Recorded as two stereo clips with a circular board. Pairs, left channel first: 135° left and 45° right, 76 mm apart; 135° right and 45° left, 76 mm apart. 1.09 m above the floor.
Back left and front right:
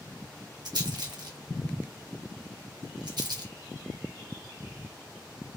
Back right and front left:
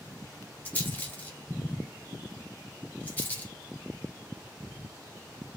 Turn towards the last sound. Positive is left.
turn(degrees=-70)